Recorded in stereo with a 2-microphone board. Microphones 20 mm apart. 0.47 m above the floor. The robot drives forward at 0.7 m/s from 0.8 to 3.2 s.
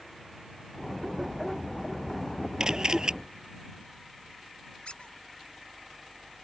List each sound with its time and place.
2.6 s a camera shutter: 40° right (ahead or behind); by 3.1 s 45° right (ahead or behind)
4.8 s a squeak: 65° left (ahead or behind)